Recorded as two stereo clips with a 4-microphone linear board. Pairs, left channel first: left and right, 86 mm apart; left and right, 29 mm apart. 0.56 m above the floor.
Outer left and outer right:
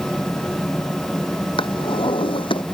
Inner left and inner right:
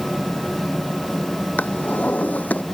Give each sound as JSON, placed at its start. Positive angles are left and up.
{"t": 1.6, "sound": "a drawer", "side_deg": 75}